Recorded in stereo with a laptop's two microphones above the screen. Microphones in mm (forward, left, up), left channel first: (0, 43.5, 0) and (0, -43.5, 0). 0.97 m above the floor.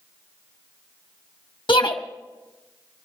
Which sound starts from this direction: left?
A shout, at 1.7 s.